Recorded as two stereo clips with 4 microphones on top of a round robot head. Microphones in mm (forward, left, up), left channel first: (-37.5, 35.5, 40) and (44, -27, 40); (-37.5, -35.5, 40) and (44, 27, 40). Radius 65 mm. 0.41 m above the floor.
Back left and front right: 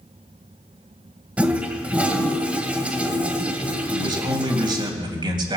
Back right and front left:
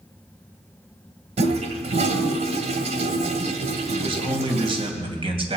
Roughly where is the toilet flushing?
Ahead left.